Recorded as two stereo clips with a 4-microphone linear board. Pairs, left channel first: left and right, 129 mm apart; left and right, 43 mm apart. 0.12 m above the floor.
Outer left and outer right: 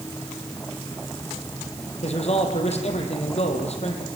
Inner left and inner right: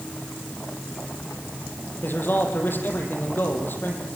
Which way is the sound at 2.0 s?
55° left (ahead or behind).